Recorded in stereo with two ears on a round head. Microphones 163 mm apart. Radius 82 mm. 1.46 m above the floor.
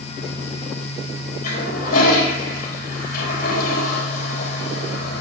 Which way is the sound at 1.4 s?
50° left (ahead or behind).